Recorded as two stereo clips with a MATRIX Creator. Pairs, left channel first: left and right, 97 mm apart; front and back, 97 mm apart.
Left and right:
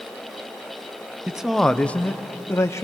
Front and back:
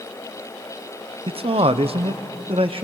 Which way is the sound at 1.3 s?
170° right.